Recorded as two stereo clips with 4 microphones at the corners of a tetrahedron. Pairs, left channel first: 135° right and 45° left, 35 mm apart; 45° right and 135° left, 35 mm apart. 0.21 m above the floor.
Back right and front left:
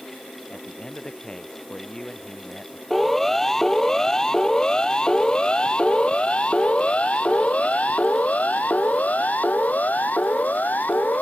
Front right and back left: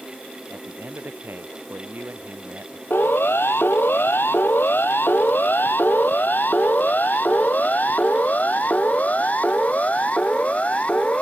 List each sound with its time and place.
0.5 s a man speaking: 155° left
2.9 s a siren: 50° right; by 11.2 s 95° right